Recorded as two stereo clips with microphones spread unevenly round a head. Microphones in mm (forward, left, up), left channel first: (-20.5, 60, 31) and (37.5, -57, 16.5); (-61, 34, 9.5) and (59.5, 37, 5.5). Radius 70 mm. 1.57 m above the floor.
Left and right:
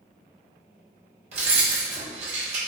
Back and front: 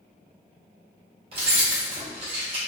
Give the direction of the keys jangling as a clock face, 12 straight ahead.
1 o'clock.